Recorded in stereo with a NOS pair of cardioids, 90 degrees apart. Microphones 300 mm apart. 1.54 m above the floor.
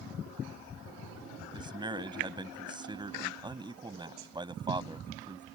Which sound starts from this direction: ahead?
A man speaking, at 1.5 s.